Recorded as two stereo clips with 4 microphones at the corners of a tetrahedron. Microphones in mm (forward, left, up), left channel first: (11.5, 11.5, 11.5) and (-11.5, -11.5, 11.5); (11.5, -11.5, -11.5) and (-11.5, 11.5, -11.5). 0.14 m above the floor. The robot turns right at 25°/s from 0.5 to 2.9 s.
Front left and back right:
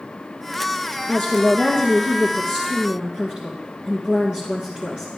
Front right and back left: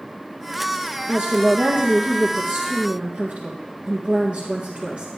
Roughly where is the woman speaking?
Behind left.